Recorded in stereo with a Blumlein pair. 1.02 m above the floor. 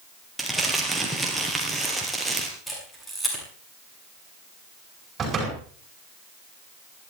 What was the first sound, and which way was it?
Crumpling, 5° right.